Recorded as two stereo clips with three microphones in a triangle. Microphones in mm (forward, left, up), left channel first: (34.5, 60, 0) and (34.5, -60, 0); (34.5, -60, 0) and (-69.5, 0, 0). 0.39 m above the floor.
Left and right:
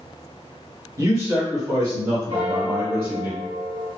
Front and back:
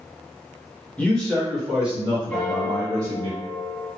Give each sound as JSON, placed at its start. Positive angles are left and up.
{"t": 1.0, "sound": "a man speaking", "azimuth_deg": -100, "distance_m": 1.3}
{"t": 2.3, "sound": "a piano", "azimuth_deg": -115, "distance_m": 1.7}